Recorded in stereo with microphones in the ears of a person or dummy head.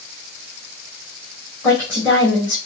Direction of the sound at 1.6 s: 25° left (ahead or behind).